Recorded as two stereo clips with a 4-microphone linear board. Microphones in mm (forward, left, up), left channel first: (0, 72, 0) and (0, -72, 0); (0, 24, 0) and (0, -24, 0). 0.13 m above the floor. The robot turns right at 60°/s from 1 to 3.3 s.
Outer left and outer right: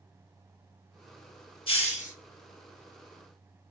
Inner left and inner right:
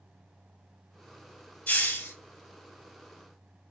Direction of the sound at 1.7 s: 40° left (ahead or behind).